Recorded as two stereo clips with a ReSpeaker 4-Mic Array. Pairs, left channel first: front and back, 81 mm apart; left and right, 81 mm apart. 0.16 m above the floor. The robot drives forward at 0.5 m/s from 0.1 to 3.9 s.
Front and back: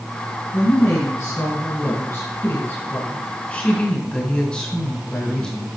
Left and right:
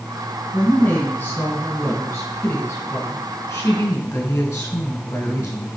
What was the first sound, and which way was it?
A woman speaking, 25° left.